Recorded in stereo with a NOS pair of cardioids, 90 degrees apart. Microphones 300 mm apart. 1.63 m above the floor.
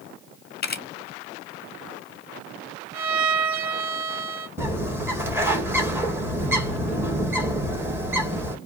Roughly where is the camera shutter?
Ahead left.